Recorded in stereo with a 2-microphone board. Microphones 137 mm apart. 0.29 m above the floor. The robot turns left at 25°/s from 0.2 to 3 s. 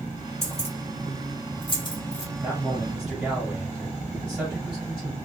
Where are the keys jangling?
50° left (ahead or behind), 1.2 m; by 2.2 s 30° left (ahead or behind), 1.2 m.